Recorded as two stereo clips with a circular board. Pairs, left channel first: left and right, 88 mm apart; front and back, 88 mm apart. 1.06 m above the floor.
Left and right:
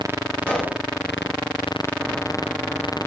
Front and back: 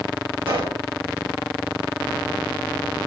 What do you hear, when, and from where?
0.5 s a pop: 165° left, 2 m